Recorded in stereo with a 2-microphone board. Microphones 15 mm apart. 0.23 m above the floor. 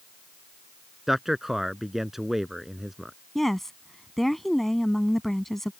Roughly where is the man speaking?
Centre.